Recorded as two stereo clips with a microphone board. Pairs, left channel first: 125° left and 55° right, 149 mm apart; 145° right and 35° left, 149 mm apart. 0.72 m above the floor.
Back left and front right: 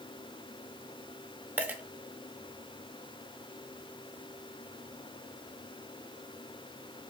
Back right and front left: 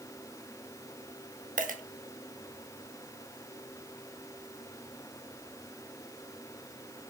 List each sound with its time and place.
1.6 s a dropped coin: 20° left, 0.6 m